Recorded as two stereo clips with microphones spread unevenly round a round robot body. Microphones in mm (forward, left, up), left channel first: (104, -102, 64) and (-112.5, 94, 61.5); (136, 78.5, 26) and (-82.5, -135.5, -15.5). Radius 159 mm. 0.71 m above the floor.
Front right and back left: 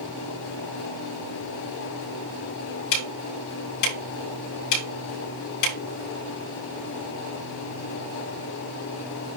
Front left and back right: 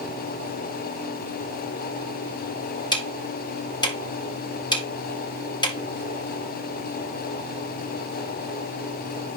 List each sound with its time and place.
2.9 s ticking: 30° right, 4.5 m